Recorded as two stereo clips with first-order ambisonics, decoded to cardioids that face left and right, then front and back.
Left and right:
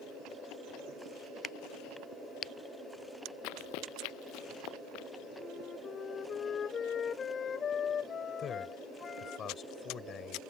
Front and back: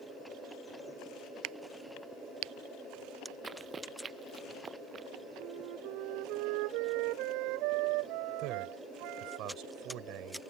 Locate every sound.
1.4 s a crack: 160° left
3.4 s running footsteps: 105° left; by 5.1 s 115° left
5.4 s a flute: 155° left
8.4 s a man speaking: 150° left